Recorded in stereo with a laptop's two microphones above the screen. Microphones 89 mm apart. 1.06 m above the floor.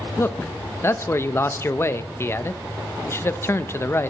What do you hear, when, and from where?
0.2 s a man speaking: 30° left (ahead or behind), 0.7 m